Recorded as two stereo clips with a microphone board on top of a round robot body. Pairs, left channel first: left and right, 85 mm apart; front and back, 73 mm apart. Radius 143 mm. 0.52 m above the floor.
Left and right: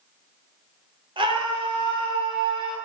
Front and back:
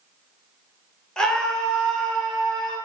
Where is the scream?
80° right, 3 m.